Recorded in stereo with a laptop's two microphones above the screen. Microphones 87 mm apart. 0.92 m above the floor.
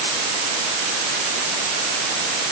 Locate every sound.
Only background noise.